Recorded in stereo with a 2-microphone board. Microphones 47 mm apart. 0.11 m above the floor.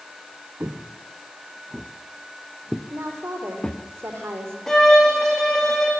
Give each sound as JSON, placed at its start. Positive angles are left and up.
{"t": 0.6, "sound": "footsteps", "side_deg": -60, "distance_m": 1.5}
{"t": 2.9, "sound": "a woman speaking", "side_deg": -70, "distance_m": 5.0}
{"t": 4.7, "sound": "a violin", "side_deg": 10, "distance_m": 4.0}